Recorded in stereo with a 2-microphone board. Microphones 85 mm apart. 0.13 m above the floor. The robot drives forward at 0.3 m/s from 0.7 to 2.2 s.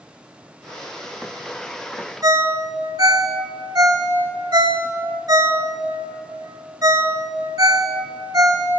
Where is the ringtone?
50° right (ahead or behind), 0.6 m.